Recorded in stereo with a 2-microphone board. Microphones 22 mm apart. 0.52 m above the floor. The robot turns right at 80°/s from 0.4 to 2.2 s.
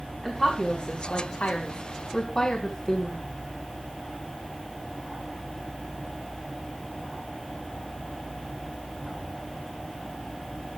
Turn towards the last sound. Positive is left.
turn(degrees=30)  # may be behind; listen again after turning